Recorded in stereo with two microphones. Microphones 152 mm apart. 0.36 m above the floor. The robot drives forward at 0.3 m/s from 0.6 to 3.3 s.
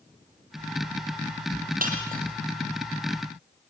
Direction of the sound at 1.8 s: 70° right (ahead or behind).